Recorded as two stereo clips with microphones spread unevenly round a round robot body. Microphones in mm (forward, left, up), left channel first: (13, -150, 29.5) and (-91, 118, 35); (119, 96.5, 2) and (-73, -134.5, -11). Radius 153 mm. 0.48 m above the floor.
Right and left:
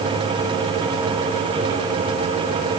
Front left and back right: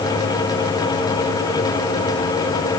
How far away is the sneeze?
No sneeze in this recording.